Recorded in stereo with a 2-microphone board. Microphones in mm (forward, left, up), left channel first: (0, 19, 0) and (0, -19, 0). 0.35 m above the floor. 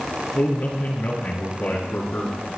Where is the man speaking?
65° left (ahead or behind), 4.5 m.